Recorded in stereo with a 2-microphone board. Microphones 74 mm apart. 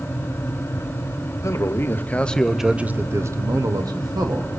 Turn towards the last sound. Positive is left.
turn(degrees=-70)  # may be behind; listen again after turning